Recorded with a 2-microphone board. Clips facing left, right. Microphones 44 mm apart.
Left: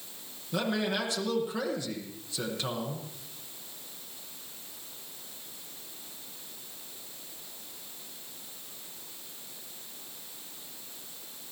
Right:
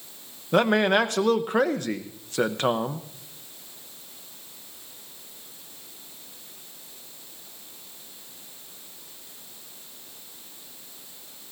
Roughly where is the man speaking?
Right.